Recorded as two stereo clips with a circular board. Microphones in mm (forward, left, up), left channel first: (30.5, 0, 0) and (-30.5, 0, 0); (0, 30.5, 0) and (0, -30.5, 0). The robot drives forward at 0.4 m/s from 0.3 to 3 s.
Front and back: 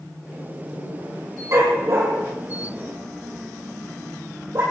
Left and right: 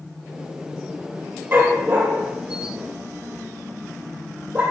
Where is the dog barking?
145° right, 3.5 m; by 4.6 s 150° right, 4 m.